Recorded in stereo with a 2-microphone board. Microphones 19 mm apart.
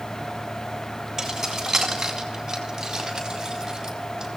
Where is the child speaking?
I don't hear a child speaking.